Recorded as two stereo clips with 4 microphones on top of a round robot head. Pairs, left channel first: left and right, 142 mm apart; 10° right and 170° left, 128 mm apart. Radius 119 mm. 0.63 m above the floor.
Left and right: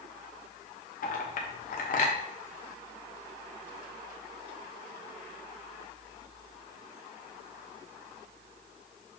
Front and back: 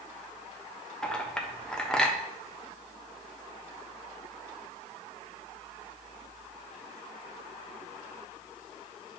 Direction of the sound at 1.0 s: 75° left.